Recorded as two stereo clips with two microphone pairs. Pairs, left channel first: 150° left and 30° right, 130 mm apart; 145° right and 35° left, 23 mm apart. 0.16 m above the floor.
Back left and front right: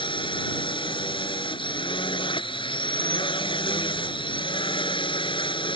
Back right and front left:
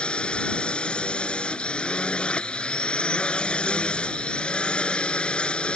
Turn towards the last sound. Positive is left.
turn(degrees=-170)